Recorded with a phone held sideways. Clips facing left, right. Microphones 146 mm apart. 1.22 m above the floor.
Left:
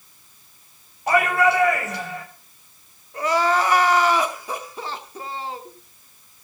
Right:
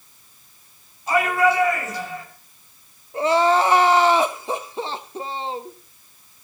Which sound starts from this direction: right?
Crying, at 3.1 s.